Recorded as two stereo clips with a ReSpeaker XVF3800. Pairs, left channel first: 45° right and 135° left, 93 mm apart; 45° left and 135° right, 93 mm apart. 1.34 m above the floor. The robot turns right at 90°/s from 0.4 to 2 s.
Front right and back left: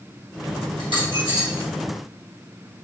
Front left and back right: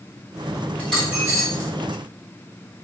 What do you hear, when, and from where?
0.8 s a dropped coin: 115° left, 1.8 m; by 1.7 s 165° right, 1.8 m